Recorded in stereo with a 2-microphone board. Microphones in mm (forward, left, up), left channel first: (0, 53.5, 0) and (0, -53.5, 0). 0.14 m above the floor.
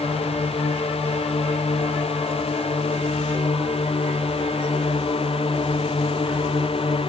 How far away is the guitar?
No guitar in this recording.